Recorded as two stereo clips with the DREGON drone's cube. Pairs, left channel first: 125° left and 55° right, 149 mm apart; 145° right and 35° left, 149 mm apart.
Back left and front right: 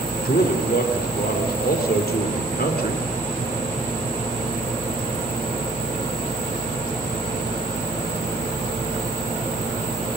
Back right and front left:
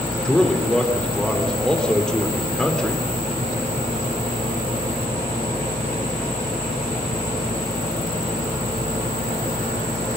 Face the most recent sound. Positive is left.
turn(degrees=130)